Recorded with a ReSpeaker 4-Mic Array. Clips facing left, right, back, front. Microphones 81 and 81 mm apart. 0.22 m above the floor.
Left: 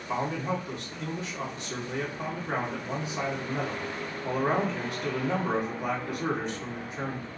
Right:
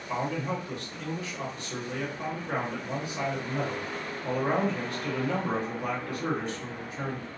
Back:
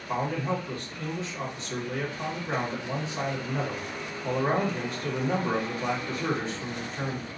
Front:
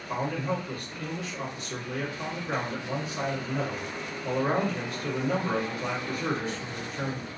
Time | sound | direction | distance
0.1 | a man speaking | 145° left | 1.5 m